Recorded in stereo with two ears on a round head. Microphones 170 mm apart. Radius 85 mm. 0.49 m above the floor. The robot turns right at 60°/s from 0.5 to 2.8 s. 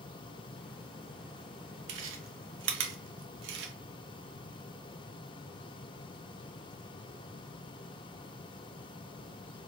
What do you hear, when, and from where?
1.9 s chewing: 65° right (ahead or behind), 0.8 m; by 3.7 s 60° right (ahead or behind), 0.8 m